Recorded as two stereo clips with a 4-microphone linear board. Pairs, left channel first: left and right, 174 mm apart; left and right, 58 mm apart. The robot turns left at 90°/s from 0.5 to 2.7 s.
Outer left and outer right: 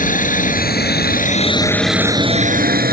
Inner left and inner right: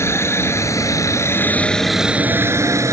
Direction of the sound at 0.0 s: 50° left (ahead or behind).